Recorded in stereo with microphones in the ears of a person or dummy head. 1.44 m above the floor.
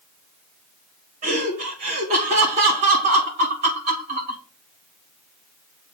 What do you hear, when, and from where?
1.2 s laughter: 45° right (ahead or behind), 3 m